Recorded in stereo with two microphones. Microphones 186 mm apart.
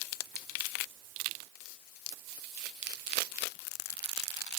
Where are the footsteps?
No footsteps in this recording.